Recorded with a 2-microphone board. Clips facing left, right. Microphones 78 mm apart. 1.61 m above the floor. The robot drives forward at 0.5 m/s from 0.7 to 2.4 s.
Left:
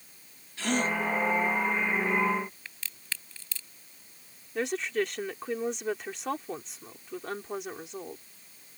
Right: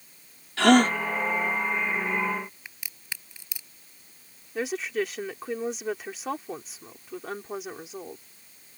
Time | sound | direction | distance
0.6 | a gasp | 85° right | ?
2.6 | a crack | 15° right (ahead or behind) | ?
4.5 | a woman speaking | centre (ahead or behind) | ?